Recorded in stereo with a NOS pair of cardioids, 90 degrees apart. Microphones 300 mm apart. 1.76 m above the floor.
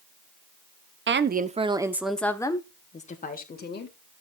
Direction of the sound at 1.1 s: 40° right.